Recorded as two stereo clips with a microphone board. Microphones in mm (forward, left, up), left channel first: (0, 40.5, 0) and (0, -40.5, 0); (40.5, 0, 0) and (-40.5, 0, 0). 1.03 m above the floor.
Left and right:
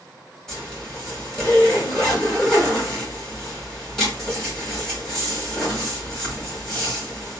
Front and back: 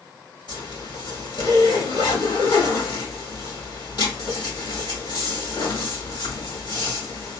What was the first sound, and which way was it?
A zipper, 5° left.